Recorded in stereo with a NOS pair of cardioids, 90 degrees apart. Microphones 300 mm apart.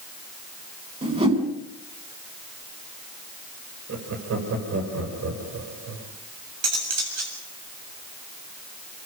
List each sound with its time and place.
1.0 s a whoosh: 20° right, 8 m
3.9 s laughter: 55° right, 7.5 m
6.6 s cutlery clinking: 60° right, 7.5 m